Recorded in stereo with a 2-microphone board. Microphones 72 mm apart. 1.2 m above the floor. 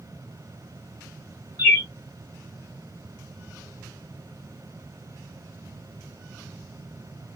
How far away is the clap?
I don't hear a clap.